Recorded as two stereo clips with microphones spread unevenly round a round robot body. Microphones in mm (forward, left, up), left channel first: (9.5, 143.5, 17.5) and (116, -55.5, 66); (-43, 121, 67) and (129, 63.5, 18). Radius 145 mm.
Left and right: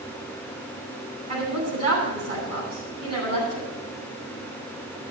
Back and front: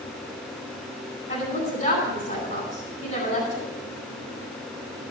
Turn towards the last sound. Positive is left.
turn(degrees=-130)